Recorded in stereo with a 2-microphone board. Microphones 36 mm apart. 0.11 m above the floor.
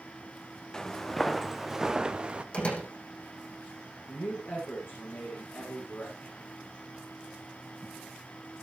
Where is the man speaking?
75° left (ahead or behind), 7 m.